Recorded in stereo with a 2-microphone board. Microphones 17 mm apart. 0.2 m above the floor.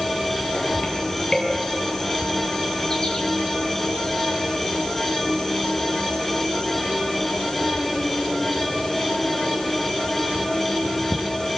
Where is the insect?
35° left (ahead or behind), 6 m.